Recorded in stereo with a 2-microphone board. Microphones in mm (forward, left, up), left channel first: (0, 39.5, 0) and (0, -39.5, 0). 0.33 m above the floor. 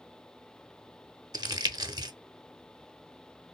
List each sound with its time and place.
1.3 s crumpling: 65° right (ahead or behind), 0.6 m